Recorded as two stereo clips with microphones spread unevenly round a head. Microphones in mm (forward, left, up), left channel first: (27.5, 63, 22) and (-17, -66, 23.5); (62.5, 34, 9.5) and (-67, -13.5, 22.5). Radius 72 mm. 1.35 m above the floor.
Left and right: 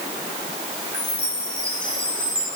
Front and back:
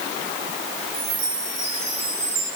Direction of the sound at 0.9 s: 155° left.